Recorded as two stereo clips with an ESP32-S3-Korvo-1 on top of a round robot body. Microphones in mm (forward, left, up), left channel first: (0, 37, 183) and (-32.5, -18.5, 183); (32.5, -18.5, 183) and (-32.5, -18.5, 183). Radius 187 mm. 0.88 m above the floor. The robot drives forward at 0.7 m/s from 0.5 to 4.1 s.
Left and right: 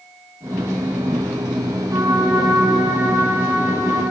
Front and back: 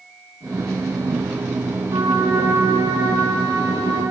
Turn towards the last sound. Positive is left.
turn(degrees=-170)